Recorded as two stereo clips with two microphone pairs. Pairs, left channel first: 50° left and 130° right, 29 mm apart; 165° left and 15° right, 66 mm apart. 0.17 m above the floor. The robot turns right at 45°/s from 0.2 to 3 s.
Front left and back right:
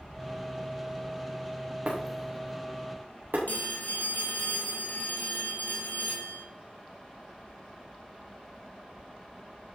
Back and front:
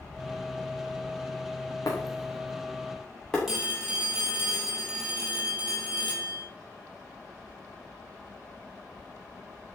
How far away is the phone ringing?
About 4 m.